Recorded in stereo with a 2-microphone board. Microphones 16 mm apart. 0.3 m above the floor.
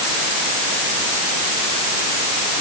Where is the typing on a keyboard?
I don't hear typing on a keyboard.